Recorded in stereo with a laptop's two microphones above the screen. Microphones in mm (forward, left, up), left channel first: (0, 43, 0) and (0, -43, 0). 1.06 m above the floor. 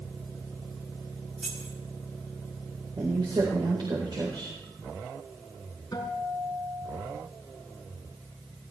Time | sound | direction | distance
1.4 | keys jangling | 10° right (ahead or behind) | 4 m
3.0 | a woman speaking | 65° right (ahead or behind) | 4 m
5.9 | a guitar | 45° left (ahead or behind) | 5 m